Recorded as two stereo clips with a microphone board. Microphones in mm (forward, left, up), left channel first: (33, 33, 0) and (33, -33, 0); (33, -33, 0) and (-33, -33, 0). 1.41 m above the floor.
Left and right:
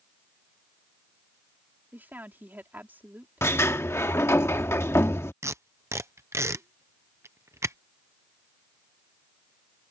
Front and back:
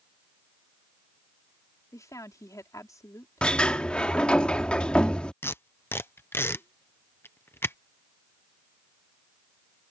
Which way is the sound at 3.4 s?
65° left.